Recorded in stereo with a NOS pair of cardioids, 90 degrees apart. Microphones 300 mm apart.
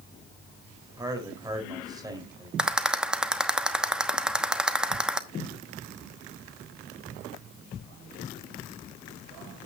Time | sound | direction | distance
1.0 | a man speaking | 15° right | 4 m
2.6 | a rattle | 5° right | 1.0 m